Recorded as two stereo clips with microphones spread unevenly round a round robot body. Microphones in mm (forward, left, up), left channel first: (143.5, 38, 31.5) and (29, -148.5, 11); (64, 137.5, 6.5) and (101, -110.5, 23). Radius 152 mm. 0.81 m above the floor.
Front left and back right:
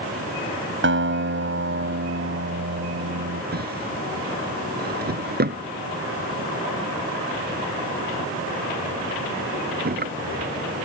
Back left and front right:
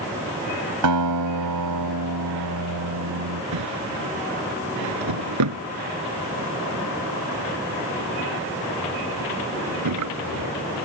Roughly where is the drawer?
Right.